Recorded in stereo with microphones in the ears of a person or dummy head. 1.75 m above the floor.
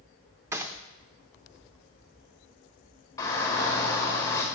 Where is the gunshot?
15° right (ahead or behind), 0.5 m.